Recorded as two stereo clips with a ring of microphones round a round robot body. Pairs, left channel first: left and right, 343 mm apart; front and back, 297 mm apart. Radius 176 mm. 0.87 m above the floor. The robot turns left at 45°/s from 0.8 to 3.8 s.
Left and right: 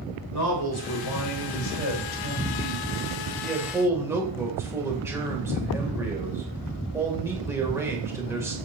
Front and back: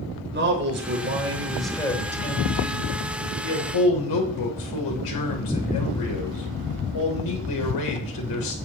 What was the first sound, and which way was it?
A man speaking, 130° left.